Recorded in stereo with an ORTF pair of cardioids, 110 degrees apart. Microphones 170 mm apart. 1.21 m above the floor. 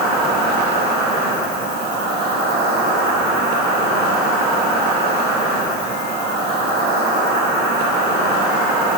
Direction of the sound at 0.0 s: 65° right.